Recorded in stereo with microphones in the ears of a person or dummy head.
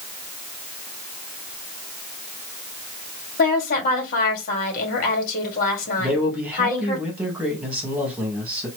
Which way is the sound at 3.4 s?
50° left (ahead or behind).